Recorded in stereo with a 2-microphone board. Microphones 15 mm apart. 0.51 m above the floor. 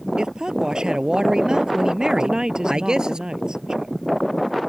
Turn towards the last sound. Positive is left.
turn(degrees=-65)  # may be behind; listen again after turning